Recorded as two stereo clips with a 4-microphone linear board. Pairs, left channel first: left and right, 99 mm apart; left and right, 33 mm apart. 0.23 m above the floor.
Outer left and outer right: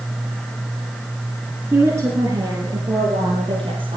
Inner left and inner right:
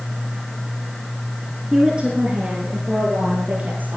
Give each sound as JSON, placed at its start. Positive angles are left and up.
{"t": 1.7, "sound": "a woman speaking", "side_deg": -20, "distance_m": 2.5}